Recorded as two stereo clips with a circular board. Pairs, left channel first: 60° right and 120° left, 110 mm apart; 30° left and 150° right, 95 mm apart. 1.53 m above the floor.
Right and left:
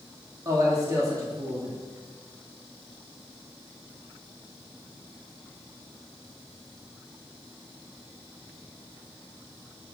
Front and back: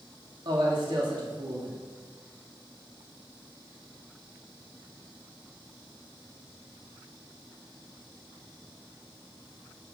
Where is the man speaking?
Straight behind, 2.5 m.